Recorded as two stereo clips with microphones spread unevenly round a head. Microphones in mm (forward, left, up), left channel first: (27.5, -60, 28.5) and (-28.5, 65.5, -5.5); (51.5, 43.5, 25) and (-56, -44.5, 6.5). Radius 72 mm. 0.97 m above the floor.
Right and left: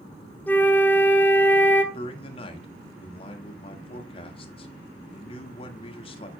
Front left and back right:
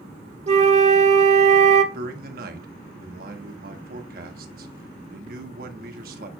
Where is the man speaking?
120° right, 1.7 m.